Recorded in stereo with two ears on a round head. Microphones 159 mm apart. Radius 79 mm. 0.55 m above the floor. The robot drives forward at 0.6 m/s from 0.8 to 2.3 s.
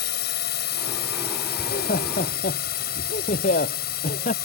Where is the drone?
60° left (ahead or behind).